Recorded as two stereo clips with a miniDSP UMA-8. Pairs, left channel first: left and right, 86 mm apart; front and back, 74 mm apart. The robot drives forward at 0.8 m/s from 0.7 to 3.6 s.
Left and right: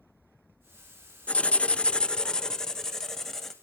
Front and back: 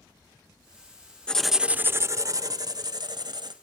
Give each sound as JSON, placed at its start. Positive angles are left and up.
{"t": 1.3, "sound": "writing", "azimuth_deg": 50, "distance_m": 0.6}